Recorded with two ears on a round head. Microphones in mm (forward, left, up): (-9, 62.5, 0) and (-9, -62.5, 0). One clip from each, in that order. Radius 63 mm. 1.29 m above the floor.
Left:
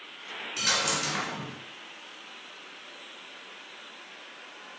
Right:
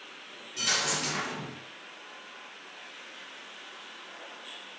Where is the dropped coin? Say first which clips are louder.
Left 1 dB; 25° left (ahead or behind), 1.4 m.